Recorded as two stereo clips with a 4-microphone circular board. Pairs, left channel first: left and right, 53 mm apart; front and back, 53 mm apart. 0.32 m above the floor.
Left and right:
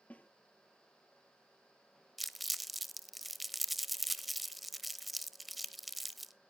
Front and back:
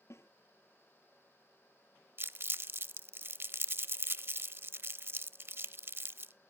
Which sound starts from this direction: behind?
Crumpling, at 2.2 s.